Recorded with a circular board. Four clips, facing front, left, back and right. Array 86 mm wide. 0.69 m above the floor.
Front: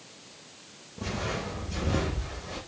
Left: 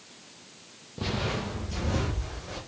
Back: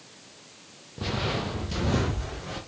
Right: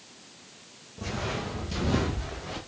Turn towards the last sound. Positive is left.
turn(degrees=-130)